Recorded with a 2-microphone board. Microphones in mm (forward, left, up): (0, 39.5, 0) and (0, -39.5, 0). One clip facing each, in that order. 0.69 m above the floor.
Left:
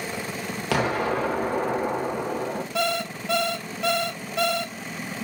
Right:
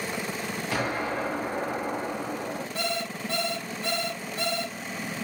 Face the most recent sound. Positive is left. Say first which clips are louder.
# left 7 dB
turn(degrees=85)